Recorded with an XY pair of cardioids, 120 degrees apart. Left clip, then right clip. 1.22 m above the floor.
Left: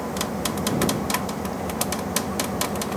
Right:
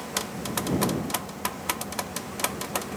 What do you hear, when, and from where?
0.0 s an engine running: 50° left